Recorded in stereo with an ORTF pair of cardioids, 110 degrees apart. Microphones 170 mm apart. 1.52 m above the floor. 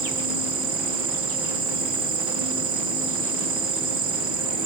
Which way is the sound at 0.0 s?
60° right.